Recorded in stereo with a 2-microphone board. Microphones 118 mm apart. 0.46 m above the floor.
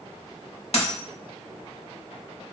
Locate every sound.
0.7 s a dropped coin: 75° left (ahead or behind), 0.8 m